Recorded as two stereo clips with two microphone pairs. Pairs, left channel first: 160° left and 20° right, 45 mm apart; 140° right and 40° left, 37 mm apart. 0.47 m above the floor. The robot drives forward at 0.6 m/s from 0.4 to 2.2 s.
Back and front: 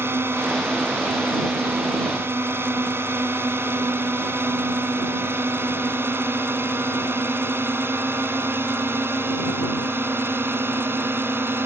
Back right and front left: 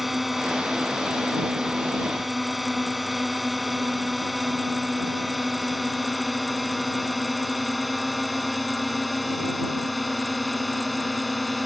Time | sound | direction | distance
0.0 | a drone | 45° right | ?